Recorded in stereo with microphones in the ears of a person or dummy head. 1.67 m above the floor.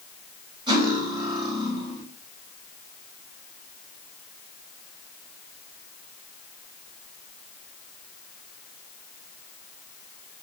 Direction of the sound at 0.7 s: 25° right (ahead or behind).